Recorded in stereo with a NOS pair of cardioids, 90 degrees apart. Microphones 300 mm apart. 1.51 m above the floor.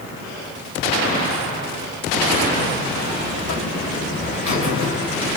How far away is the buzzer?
About 1.2 m.